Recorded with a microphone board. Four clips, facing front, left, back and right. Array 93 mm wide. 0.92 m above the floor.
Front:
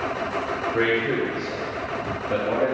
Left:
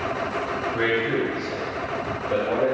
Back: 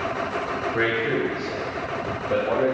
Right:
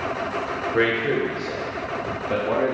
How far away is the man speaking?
About 0.9 m.